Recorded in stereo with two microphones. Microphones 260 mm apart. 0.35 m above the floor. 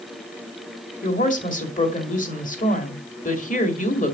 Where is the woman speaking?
30° left (ahead or behind), 1.8 m.